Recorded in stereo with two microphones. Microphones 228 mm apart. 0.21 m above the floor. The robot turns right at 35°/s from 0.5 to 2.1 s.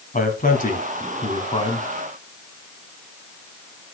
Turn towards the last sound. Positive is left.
turn(degrees=150)